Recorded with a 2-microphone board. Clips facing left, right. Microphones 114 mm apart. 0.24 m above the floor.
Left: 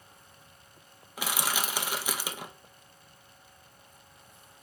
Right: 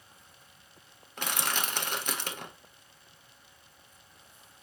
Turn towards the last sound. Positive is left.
turn(degrees=5)  # may be behind; listen again after turning